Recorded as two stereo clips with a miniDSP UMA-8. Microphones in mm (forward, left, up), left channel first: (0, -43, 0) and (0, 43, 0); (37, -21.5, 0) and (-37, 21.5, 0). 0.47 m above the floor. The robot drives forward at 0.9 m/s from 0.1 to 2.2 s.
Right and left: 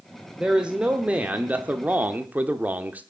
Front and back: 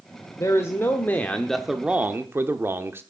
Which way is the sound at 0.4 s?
15° left.